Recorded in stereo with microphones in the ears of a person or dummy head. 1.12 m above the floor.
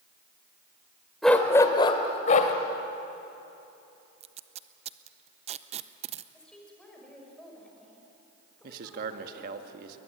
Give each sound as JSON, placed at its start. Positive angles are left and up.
{"t": 1.2, "sound": "a dog barking", "side_deg": 0, "distance_m": 1.7}
{"t": 4.2, "sound": "tape being pulled", "side_deg": -30, "distance_m": 0.6}
{"t": 6.3, "sound": "a woman speaking", "side_deg": 0, "distance_m": 6.0}
{"t": 8.6, "sound": "a man speaking", "side_deg": -55, "distance_m": 1.8}